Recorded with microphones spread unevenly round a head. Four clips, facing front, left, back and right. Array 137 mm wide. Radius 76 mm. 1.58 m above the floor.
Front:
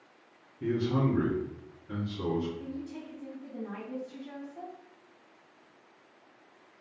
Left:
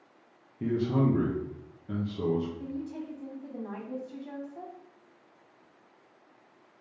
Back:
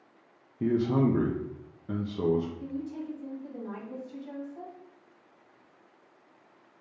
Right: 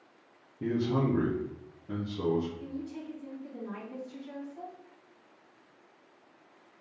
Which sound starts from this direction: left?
A woman speaking, at 2.6 s.